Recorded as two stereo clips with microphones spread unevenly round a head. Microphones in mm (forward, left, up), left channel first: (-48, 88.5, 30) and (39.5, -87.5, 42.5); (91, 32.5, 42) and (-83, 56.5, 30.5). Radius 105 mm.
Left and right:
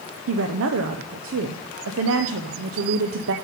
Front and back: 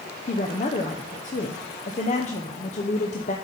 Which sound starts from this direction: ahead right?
A woman speaking, at 0.3 s.